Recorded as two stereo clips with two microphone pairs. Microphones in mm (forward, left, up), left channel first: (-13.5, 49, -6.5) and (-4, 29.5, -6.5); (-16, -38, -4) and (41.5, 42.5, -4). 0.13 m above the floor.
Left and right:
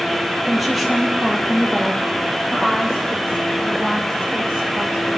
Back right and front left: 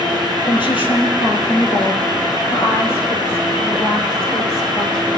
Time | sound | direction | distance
0.5 | a woman speaking | 150° right | 4 m